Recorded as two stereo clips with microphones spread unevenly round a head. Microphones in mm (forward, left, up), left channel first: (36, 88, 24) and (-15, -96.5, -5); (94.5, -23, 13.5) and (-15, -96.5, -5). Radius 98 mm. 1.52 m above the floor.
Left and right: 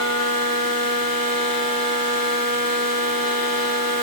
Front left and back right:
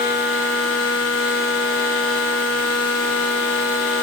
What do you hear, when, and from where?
Only background noise.